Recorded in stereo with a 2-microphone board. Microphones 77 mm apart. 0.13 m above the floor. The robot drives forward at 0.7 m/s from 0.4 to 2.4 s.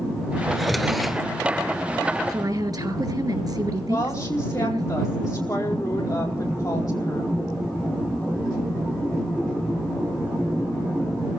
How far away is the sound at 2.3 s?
About 2.5 m.